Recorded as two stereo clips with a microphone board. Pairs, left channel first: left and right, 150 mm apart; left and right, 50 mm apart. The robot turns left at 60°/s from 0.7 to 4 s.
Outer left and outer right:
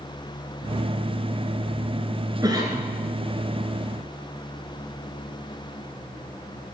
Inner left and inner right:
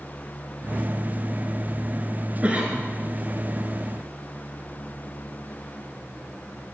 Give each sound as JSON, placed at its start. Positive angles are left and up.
{"t": 2.4, "sound": "a cough", "side_deg": -25, "distance_m": 1.2}